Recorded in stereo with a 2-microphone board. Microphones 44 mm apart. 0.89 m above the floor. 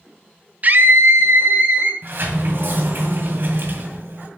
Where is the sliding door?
55° right (ahead or behind), 1.9 m.